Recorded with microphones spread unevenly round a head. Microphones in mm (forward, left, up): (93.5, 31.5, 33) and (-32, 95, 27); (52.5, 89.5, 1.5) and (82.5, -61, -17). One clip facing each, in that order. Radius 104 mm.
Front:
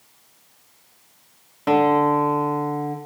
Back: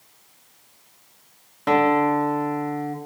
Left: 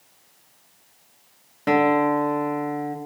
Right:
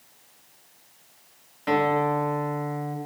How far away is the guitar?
About 1.2 m.